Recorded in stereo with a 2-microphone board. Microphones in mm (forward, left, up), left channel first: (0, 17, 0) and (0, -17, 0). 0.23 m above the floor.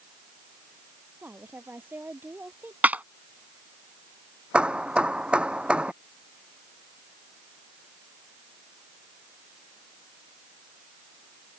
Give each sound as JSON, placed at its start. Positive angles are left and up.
{"t": 1.2, "sound": "a woman speaking", "side_deg": -70}
{"t": 2.8, "sound": "a clap", "side_deg": -50}
{"t": 4.5, "sound": "hammering", "side_deg": -30}